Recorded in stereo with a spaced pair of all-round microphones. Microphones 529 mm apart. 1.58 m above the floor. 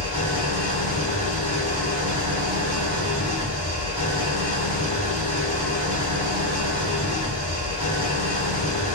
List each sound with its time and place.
0.0 s an engine running: 45° left (ahead or behind), 3.5 m